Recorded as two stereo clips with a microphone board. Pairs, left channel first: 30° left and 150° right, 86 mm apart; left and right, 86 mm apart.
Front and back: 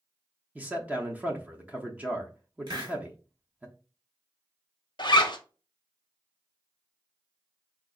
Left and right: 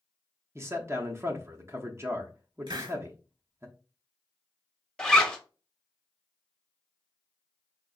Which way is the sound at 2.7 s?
115° right.